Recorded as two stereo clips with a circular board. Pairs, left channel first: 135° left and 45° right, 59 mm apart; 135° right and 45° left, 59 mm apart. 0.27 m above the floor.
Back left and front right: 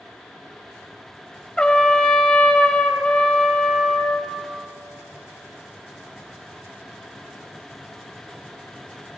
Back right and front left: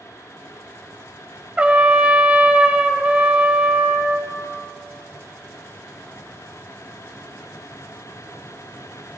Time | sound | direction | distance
1.6 | a trumpet | 80° left | 1.0 m